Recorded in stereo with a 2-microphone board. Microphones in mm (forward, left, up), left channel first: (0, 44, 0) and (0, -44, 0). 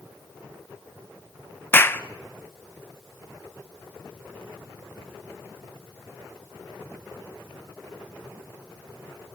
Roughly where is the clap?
Left.